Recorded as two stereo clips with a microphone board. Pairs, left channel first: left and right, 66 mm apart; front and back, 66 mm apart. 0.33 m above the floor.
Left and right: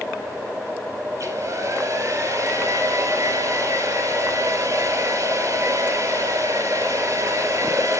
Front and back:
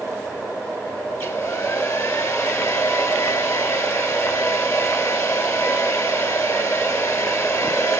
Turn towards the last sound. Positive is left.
turn(degrees=-45)